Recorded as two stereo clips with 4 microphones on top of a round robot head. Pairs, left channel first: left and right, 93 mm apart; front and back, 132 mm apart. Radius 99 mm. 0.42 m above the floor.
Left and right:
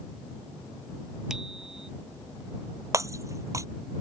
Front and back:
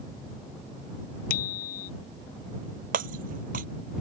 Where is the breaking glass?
145° right.